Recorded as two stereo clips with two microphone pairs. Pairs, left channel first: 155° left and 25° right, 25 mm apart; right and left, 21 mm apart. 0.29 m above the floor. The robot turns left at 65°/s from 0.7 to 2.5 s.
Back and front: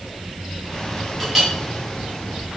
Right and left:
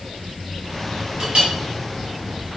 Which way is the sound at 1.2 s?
75° left.